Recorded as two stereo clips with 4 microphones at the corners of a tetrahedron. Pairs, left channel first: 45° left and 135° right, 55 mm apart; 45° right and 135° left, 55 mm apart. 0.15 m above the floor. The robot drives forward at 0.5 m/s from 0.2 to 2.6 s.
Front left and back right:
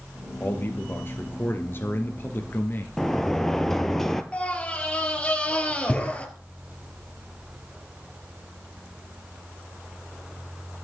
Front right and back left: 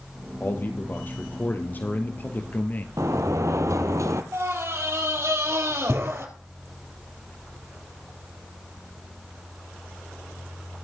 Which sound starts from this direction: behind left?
A sliding door, at 3.0 s.